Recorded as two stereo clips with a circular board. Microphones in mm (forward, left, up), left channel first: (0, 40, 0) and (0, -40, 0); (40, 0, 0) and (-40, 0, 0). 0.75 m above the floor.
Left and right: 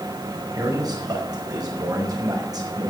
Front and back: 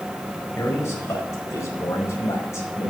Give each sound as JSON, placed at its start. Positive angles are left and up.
{"t": 0.6, "sound": "a man speaking", "azimuth_deg": -55, "distance_m": 4.5}